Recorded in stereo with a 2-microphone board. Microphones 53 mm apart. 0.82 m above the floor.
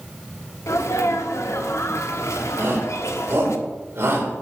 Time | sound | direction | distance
0.7 | a sneeze | 65° left (ahead or behind) | 1.4 m
2.6 | a shout | 50° right (ahead or behind) | 4 m